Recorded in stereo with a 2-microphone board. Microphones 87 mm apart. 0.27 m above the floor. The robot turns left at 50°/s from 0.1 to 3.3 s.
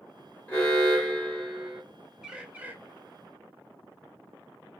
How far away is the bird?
About 0.6 m.